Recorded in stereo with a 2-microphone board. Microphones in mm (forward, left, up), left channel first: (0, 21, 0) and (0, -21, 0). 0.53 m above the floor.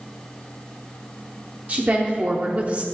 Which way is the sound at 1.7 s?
35° right (ahead or behind).